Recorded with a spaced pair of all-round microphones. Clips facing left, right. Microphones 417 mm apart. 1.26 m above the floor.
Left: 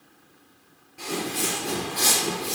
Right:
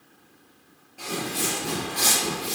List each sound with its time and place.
1.0 s footsteps: 15° left (ahead or behind), 1.4 m; by 2.5 s 35° right (ahead or behind), 2.5 m